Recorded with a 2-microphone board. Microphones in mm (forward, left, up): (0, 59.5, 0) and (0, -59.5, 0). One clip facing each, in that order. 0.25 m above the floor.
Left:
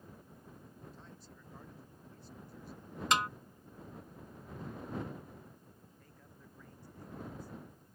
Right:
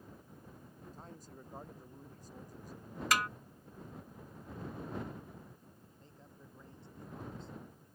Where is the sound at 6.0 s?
25° right (ahead or behind).